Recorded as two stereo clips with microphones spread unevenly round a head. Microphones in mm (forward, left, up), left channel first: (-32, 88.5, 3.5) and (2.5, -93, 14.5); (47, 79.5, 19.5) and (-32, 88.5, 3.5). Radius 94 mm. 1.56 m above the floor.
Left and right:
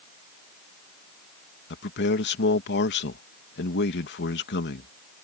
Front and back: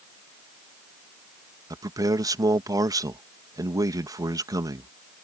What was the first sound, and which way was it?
A man speaking, 130° left.